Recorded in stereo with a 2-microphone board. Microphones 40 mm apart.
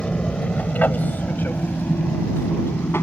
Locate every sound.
0.0 s an aircraft: 25° left (ahead or behind); by 3.0 s 70° left (ahead or behind)